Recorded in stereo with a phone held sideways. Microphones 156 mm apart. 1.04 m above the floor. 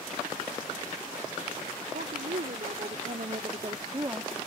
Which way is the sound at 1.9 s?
75° right (ahead or behind).